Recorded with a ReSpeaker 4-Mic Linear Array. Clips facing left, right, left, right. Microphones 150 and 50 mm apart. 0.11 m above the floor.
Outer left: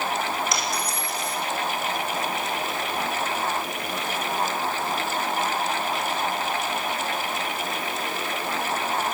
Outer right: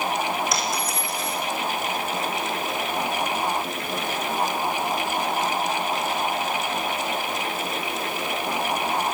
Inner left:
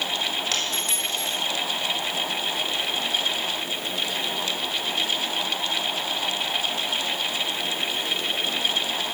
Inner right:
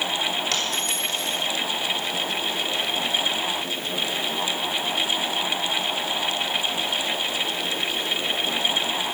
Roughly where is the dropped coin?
Centre.